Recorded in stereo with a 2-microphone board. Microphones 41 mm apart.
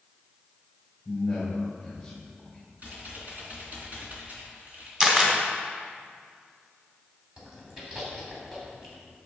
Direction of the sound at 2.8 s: 35° right (ahead or behind).